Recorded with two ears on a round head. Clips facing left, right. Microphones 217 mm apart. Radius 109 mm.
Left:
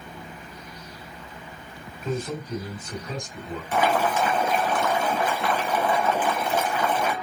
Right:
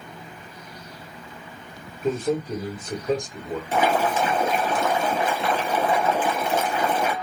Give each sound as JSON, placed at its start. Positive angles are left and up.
{"t": 2.0, "sound": "a man speaking", "side_deg": -45, "distance_m": 1.9}
{"t": 3.7, "sound": "boiling", "side_deg": -25, "distance_m": 1.4}